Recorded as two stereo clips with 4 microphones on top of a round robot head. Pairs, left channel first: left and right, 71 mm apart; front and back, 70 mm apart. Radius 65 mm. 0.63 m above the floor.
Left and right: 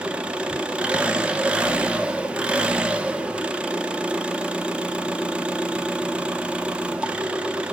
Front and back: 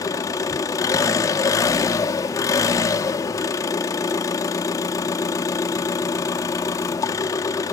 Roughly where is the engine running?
Ahead.